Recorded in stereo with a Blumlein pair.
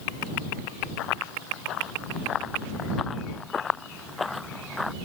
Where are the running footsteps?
35° left; by 4.9 s 5° left.